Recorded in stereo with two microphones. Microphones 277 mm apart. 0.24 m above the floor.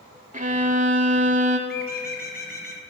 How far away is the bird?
About 1.0 m.